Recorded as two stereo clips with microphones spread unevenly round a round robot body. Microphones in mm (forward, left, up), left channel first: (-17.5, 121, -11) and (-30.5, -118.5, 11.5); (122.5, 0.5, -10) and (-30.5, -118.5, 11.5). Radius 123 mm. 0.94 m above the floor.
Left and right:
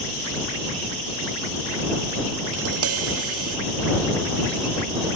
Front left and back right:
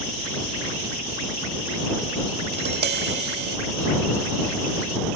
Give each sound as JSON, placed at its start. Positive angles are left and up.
{"t": 2.5, "sound": "tapping", "azimuth_deg": -115}